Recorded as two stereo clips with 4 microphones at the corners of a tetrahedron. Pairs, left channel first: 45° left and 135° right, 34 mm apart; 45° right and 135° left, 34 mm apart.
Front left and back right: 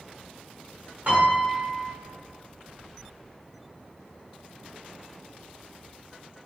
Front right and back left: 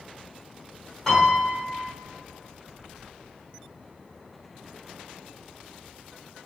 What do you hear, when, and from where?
1.1 s a piano: 115° right, 1.0 m